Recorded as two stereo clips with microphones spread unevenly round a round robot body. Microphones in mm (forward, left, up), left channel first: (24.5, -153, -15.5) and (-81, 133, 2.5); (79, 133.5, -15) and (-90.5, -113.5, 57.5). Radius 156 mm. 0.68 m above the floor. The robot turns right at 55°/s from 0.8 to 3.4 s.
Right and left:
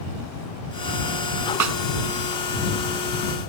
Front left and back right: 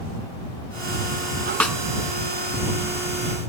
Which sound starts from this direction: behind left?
A snare drum, at 1.6 s.